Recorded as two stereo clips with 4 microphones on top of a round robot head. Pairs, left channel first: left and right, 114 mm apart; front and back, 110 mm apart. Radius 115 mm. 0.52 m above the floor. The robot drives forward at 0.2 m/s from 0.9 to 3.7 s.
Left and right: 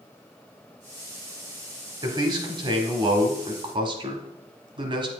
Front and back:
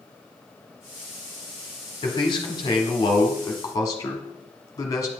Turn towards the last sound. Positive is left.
turn(degrees=-55)